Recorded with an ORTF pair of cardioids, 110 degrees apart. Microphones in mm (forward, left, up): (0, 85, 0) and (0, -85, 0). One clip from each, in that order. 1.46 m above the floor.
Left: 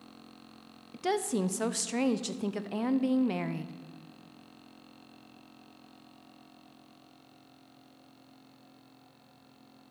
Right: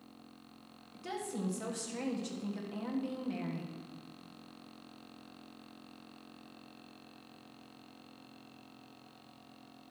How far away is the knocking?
No knocking in this recording.